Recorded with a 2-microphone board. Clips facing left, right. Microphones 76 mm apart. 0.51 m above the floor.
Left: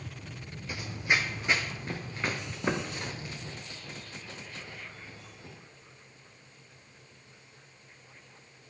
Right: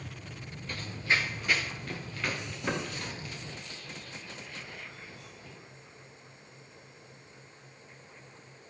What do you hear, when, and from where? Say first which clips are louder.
0.7 s running footsteps: left 1 dB; 10° left (ahead or behind), 0.7 m; by 5.5 s 30° left (ahead or behind), 5 m